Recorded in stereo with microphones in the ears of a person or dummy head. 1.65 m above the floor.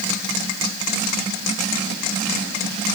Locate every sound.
Only background noise.